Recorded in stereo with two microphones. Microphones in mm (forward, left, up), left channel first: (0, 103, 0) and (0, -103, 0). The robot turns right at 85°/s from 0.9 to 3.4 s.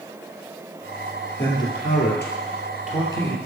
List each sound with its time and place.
1.4 s a man speaking: 10° left (ahead or behind), 2.5 m; by 3.4 s centre (ahead or behind), 2.5 m